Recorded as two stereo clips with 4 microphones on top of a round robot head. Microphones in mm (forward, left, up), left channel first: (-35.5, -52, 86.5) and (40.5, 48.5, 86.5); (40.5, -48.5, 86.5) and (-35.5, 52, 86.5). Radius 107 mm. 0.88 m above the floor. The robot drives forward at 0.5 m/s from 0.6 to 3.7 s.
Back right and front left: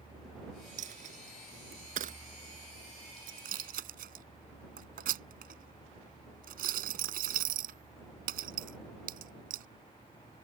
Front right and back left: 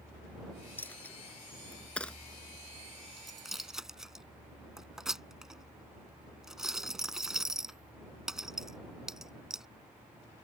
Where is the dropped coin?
25° left; by 9.7 s 40° left.